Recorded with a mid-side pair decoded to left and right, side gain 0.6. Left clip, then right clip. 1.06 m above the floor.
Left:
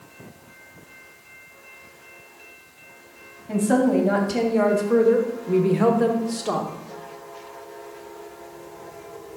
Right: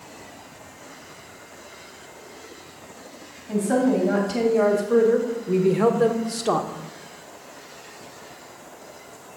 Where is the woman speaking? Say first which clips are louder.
Left 1 dB; 20° left, 2.5 m; by 6.7 s 30° right, 1.2 m.